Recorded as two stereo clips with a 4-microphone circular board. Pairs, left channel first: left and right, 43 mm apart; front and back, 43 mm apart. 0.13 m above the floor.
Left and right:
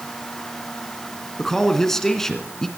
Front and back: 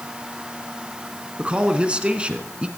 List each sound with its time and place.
1.4 s a man speaking: 155° left, 1.8 m